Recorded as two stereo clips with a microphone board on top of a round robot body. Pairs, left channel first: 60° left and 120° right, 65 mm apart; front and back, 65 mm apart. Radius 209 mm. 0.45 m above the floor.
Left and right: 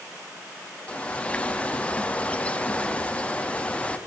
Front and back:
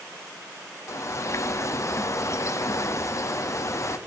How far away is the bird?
About 1.0 m.